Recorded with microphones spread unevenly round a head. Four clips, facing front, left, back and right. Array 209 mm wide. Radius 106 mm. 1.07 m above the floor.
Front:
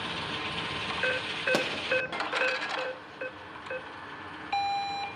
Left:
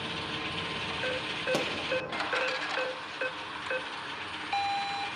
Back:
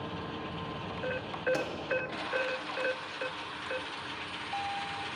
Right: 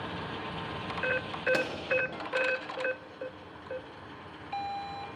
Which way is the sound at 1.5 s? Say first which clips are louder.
Left 1 dB, front 4 dB; 20° left.